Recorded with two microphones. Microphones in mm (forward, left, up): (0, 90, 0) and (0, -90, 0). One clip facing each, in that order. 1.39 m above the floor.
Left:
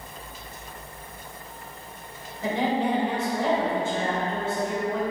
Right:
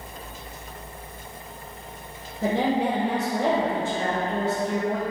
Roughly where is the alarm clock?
No alarm clock in this recording.